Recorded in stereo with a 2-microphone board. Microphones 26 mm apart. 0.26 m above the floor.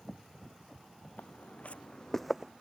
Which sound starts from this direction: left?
Footsteps, at 1.2 s.